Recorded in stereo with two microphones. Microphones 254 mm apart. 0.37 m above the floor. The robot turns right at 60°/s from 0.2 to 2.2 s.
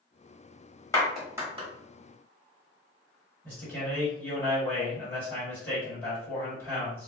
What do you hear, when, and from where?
0.9 s a clap: 15° left (ahead or behind), 1.1 m; by 1.7 s 25° right (ahead or behind), 1.1 m
3.4 s a man speaking: 10° left (ahead or behind), 1.8 m